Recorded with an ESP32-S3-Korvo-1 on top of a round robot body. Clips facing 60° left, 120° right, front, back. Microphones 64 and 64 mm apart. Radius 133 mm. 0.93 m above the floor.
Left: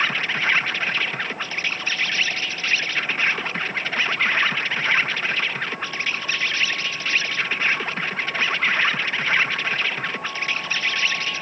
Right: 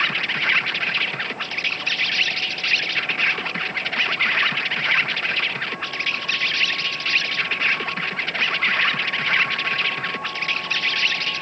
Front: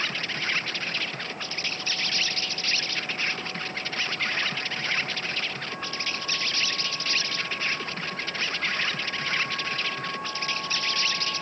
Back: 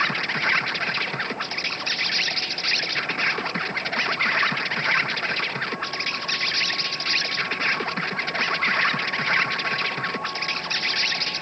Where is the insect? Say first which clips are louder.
Even, back 7 dB; 145° left.